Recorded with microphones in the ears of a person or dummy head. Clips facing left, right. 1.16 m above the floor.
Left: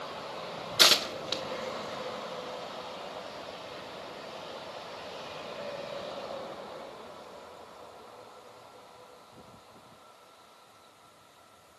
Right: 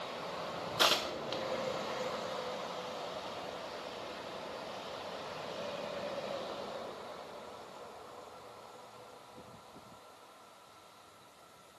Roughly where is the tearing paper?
Left.